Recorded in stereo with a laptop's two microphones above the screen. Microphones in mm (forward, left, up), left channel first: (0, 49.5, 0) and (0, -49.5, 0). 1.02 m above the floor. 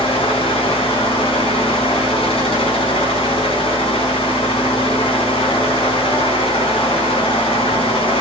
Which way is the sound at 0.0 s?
70° left (ahead or behind).